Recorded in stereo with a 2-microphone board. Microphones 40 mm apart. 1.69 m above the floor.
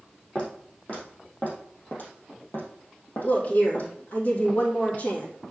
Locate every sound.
0.3 s footsteps: 25° left (ahead or behind), 4 m; by 3.9 s 50° left (ahead or behind), 3.5 m
3.2 s a woman speaking: 45° left (ahead or behind), 2.5 m